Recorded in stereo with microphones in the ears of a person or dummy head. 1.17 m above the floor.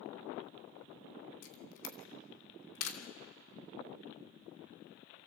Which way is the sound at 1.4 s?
85° left.